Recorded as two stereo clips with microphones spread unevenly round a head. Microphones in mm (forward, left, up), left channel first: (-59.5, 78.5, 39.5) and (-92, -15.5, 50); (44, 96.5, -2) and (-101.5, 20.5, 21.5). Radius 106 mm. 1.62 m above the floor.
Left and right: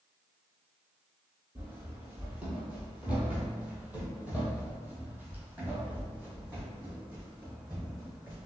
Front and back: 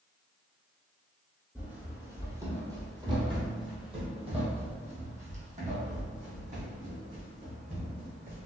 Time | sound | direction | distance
1.6 | running footsteps | 110° right | 1.7 m